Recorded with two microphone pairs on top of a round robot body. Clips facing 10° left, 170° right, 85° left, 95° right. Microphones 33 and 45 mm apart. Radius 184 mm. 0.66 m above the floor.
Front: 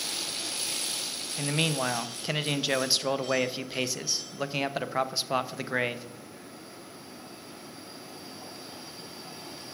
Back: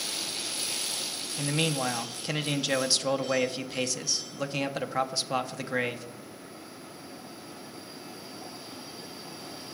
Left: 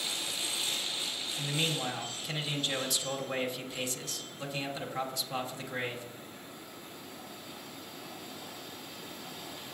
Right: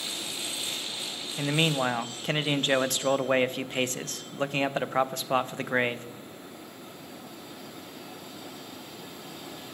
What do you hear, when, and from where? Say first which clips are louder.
1.4 s a man speaking: even, right 8 dB; 60° right, 0.7 m